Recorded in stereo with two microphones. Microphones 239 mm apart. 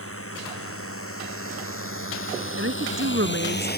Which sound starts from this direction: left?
A drone, at 0.0 s.